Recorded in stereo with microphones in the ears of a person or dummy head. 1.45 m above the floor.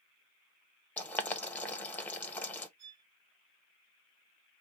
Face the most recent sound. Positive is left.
turn(degrees=-35)  # may be behind; listen again after turning